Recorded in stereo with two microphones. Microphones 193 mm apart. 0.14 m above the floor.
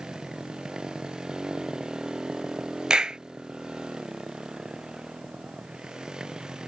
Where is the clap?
5° right (ahead or behind).